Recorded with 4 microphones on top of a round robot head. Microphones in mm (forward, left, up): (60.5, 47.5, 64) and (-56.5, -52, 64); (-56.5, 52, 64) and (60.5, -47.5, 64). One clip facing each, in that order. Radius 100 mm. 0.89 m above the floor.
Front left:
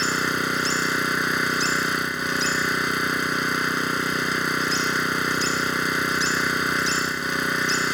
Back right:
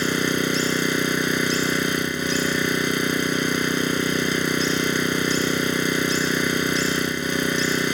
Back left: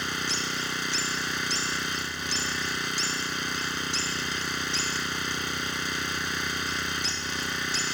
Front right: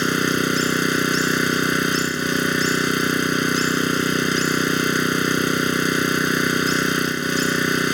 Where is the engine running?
75° right.